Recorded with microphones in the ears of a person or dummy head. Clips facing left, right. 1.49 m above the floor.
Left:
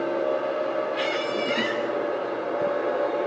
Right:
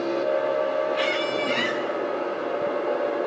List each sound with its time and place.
0.9 s a squeak: 5° left (ahead or behind), 2.5 m